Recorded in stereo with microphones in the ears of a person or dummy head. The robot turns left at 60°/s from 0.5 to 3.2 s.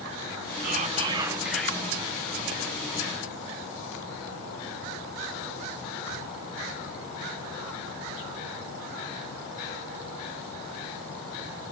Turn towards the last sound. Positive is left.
turn(degrees=80)